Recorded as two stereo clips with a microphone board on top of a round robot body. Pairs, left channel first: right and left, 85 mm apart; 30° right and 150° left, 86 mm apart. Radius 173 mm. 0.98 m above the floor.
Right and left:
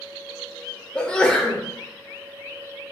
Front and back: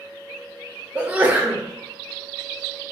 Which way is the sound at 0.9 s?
160° right.